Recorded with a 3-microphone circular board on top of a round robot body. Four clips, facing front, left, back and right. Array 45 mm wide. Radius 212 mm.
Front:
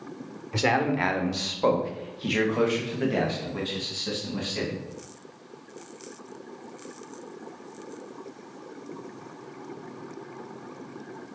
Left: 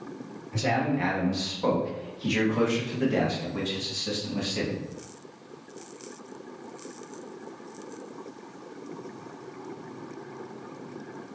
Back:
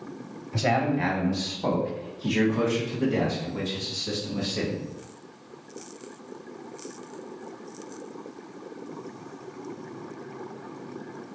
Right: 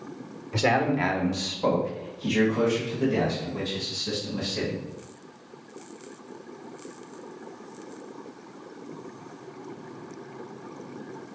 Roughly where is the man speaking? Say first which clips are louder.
Right 3 dB, front 1 dB; ahead right.